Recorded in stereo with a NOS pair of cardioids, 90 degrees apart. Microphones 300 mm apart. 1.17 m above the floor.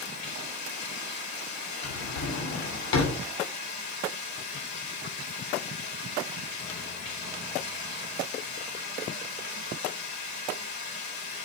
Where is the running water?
65° left, 4.5 m.